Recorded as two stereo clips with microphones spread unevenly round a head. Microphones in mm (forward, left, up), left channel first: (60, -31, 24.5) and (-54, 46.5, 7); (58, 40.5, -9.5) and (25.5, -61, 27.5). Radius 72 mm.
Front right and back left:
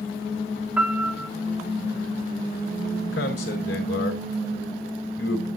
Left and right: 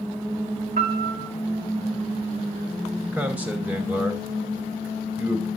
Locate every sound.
0.8 s a piano: 130° right, 1.8 m
3.1 s a man speaking: 40° right, 4.5 m